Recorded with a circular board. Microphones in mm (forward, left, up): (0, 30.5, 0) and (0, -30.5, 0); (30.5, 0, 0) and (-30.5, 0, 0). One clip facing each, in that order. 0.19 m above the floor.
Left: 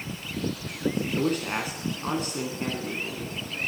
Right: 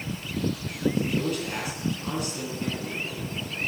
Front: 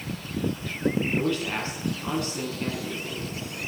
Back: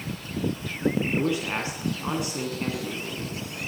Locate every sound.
1.1 s a man speaking: 115° left, 2 m